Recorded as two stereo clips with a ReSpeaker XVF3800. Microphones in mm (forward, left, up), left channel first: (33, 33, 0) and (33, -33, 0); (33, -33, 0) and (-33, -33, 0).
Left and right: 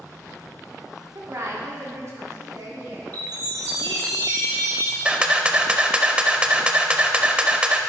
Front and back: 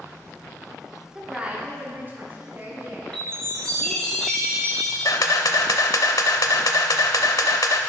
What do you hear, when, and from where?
1.1 s a woman speaking: 100° right, 1.5 m; by 4.1 s 130° right, 5.5 m
3.1 s a chime: 80° right, 3.5 m
5.0 s a camera shutter: 15° right, 0.7 m